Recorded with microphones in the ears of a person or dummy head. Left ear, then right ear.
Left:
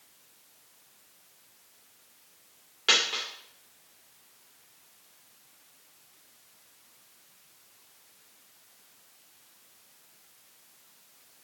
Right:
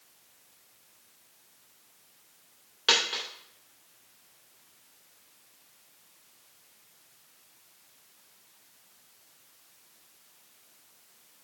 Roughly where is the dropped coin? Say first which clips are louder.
Left 1 dB; centre.